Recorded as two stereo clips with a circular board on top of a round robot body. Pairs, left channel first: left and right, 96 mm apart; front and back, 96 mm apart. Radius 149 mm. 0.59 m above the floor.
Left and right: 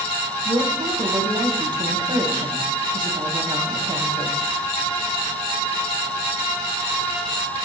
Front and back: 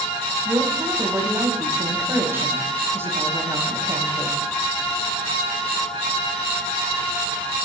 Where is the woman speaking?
115° right, 5.5 m.